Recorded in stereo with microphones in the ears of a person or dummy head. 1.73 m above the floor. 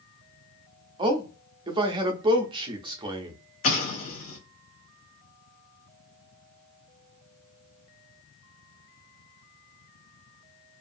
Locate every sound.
1.0 s a man speaking: 25° right (ahead or behind), 0.5 m
3.6 s an explosion: 45° left (ahead or behind), 0.7 m